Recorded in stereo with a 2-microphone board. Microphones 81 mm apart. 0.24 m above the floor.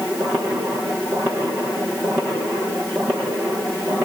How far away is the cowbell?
I don't hear a cowbell.